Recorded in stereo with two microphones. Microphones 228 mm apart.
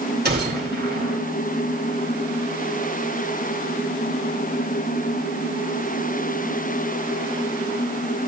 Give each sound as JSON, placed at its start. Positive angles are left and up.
{"t": 0.2, "sound": "a gunshot", "side_deg": -45, "distance_m": 2.5}